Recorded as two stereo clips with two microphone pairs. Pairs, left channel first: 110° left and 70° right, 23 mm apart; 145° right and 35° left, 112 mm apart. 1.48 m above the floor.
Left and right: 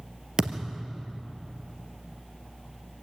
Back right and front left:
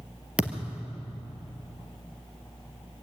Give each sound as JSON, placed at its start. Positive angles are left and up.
{"t": 0.4, "sound": "a thud", "azimuth_deg": -40, "distance_m": 2.0}